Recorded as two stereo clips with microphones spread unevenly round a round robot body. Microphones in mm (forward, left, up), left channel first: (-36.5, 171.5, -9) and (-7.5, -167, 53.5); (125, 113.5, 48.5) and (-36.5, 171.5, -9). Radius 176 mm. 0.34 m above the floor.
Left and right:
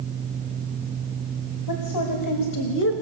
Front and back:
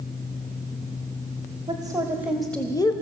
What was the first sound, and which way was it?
A woman speaking, 105° left.